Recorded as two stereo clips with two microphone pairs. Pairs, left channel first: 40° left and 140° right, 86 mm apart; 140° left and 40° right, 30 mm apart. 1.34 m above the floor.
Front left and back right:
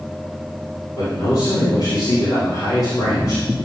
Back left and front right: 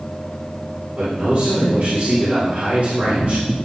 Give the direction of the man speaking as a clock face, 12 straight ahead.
12 o'clock.